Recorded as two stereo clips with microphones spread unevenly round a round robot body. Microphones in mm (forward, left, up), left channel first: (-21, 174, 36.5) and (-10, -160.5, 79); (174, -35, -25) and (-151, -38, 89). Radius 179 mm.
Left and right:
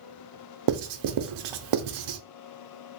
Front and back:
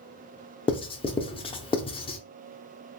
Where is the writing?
80° right, 0.6 m.